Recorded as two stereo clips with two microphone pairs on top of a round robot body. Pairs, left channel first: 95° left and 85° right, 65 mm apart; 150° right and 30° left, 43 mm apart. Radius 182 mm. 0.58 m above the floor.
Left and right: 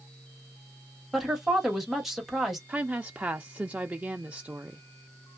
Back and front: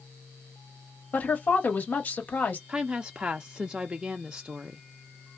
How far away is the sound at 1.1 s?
About 1.5 m.